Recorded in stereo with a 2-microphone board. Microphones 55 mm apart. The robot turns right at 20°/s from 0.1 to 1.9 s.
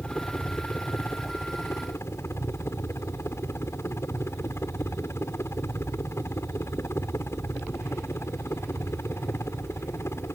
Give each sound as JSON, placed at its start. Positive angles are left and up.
{"t": 0.0, "sound": "a helicopter", "azimuth_deg": 25}